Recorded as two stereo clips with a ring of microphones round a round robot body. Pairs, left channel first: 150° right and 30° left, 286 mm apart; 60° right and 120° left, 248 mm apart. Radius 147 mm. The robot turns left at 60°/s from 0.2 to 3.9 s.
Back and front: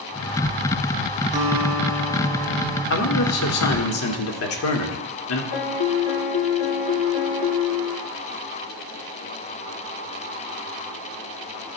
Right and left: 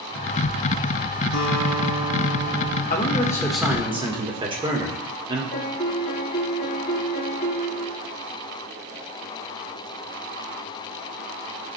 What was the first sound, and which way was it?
A guitar, 35° right.